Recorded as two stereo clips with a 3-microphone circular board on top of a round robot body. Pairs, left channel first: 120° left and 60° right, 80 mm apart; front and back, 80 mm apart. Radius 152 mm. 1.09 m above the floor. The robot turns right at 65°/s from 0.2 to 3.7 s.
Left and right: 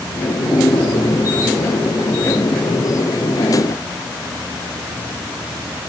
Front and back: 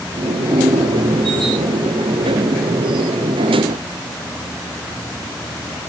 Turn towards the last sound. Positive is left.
No sound to turn to.